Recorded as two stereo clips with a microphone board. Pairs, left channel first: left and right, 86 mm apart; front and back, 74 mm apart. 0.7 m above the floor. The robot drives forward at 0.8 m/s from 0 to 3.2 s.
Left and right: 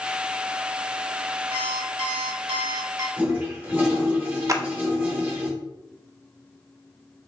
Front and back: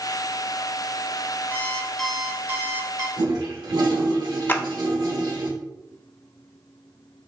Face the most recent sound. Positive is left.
turn(degrees=-55)